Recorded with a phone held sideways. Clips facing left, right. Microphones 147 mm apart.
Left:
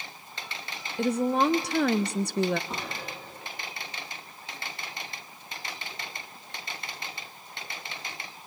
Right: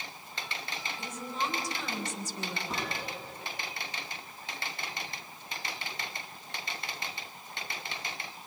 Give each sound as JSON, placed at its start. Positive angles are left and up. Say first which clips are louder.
{"t": 1.0, "sound": "a woman speaking", "louder": "left 14 dB", "side_deg": 70, "distance_m": 0.5}
{"t": 2.7, "sound": "a gunshot", "louder": "even", "side_deg": 0, "distance_m": 6.5}